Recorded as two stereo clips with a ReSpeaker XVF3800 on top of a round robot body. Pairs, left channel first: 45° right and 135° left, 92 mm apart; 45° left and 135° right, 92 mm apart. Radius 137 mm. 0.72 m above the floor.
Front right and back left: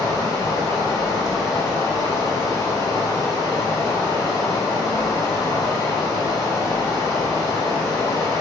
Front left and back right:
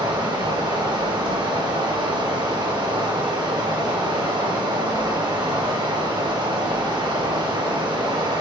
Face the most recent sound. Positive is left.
turn(degrees=-100)